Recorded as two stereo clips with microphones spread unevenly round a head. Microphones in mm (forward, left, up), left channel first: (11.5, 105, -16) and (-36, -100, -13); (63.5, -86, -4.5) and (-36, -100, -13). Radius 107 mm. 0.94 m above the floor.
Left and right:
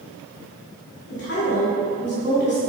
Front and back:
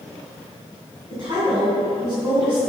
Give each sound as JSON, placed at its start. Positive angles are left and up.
{"t": 1.1, "sound": "a woman speaking", "azimuth_deg": 115, "distance_m": 2.5}